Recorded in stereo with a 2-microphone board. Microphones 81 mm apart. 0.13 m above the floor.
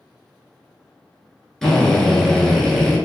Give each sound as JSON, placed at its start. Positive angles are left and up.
{"t": 1.6, "sound": "a drill", "side_deg": 5, "distance_m": 1.0}